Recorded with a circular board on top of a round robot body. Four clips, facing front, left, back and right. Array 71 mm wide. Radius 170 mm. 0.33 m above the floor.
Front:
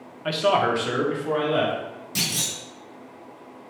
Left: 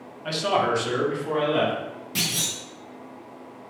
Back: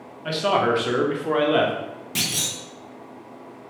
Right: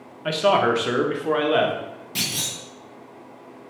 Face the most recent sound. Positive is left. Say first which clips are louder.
# even, back 1 dB
turn(degrees=180)